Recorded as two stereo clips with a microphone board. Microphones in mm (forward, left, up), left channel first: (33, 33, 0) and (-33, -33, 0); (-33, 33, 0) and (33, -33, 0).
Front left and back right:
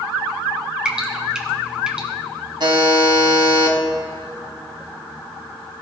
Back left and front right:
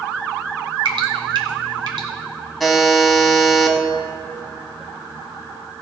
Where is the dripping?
55° right, 1.9 m.